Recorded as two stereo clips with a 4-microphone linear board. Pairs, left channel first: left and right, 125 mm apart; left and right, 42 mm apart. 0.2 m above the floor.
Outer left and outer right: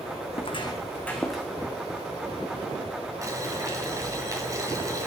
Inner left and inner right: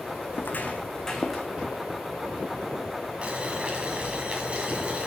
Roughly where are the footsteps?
Left.